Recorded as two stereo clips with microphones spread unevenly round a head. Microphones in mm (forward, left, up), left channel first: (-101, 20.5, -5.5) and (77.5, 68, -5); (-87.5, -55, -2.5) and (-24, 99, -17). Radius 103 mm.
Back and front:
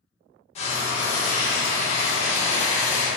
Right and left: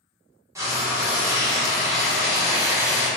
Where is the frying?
140° left, 0.7 m.